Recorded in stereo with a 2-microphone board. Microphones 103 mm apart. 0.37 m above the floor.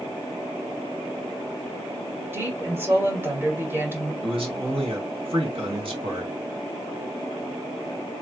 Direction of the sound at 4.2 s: 55° right (ahead or behind).